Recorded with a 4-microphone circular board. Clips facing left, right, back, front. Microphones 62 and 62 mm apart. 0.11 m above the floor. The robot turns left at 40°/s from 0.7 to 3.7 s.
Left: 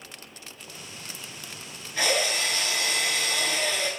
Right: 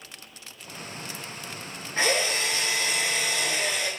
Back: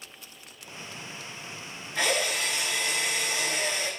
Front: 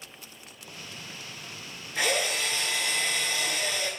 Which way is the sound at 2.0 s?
80° right.